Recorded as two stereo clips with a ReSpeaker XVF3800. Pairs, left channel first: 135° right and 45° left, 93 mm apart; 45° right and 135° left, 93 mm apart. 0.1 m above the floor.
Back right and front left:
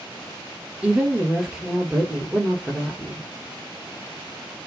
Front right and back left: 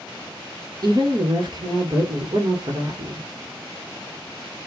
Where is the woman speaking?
125° left, 2.5 m.